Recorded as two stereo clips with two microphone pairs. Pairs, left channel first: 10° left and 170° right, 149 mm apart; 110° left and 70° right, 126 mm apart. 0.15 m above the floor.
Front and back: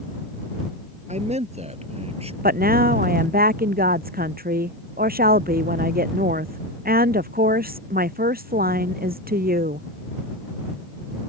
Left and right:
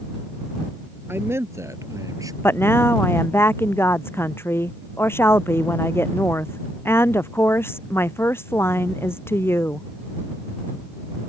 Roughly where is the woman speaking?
Behind.